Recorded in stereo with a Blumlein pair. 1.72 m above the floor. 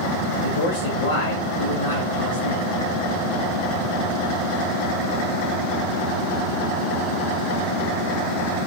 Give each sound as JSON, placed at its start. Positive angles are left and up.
{"t": 0.4, "sound": "a man speaking", "azimuth_deg": 70, "distance_m": 1.7}